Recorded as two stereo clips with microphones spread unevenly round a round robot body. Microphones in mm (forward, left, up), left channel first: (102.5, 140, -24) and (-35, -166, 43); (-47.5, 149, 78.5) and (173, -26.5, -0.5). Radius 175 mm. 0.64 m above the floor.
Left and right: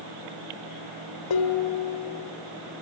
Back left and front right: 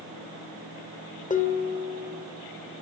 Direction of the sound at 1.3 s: 75° left.